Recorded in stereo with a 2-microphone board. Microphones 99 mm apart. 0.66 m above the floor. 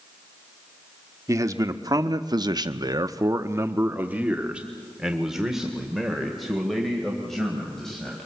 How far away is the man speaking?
About 1.3 m.